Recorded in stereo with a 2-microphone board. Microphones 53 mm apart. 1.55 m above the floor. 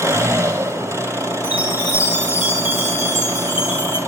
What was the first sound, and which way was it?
An engine running, 60° right (ahead or behind).